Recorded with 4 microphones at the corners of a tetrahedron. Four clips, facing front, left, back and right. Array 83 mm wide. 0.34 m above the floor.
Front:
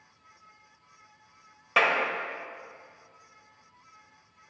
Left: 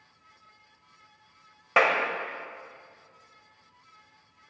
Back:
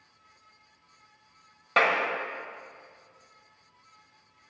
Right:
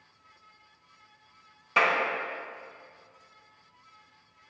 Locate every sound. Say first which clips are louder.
1.8 s a clap: left 2 dB, even; 105° left, 1.2 m